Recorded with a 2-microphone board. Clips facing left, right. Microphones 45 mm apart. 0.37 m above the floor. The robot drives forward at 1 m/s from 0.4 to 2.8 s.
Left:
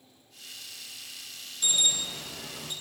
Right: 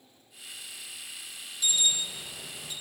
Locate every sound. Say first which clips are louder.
1.6 s an alarm: even; 40° left (ahead or behind), 4 m; by 2.7 s 50° left (ahead or behind), 3 m